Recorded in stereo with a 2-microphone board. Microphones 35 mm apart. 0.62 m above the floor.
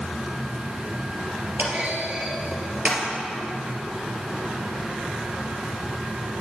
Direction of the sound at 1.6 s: 45° right (ahead or behind).